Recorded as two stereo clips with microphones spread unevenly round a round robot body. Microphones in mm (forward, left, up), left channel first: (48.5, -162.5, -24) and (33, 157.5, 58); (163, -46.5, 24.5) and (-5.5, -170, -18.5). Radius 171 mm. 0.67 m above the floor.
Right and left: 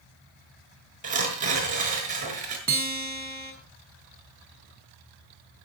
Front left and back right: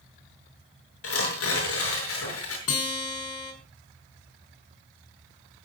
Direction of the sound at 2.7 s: 30° left.